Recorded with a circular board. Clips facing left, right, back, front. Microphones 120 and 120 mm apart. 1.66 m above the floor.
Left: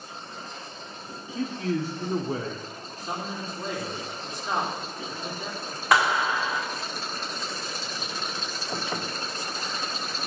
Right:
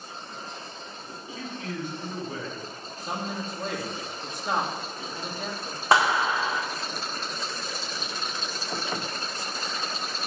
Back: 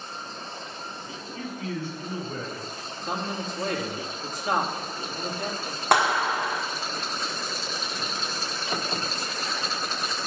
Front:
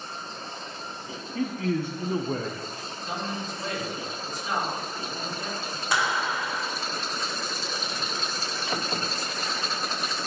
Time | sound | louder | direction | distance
1.4 | a man speaking | left 7 dB, front 6 dB | 35° left | 0.9 m
3.0 | a man speaking | right 1 dB, back 2 dB | 125° right | 2.5 m
5.9 | a clap | right 1 dB, back 5 dB | 150° right | 1.5 m